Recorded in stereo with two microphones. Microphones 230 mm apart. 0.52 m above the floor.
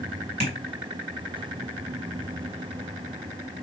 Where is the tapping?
45° right (ahead or behind), 3 m.